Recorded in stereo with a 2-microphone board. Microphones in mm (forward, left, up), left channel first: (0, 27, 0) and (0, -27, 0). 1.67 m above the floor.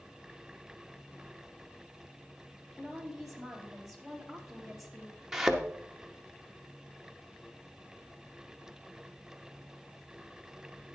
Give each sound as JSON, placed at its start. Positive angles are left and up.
{"t": 2.8, "sound": "a woman speaking", "side_deg": -5, "distance_m": 3.0}
{"t": 5.3, "sound": "a thud", "side_deg": -5, "distance_m": 1.0}